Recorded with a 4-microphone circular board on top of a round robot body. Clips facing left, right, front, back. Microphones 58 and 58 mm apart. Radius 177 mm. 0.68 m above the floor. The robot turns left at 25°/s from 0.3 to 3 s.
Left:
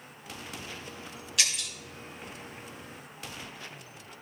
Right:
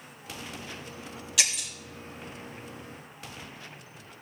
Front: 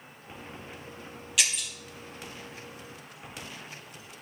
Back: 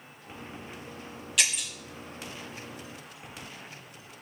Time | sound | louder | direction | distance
1.4 | breaking glass | right 1 dB, back 1 dB | 85° right | 1.8 m